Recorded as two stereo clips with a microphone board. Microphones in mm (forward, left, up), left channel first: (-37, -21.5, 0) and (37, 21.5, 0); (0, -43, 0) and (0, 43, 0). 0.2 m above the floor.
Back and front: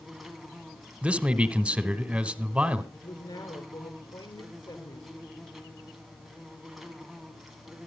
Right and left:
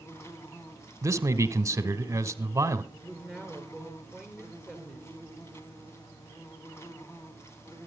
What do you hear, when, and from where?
0.0 s an insect: 55° right, 2.5 m
1.0 s a man speaking: 95° left, 1.5 m
2.9 s a woman speaking: 170° right, 3.5 m